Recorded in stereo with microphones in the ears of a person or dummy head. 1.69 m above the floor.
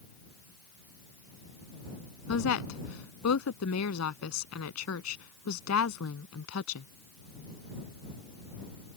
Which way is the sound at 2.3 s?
85° left.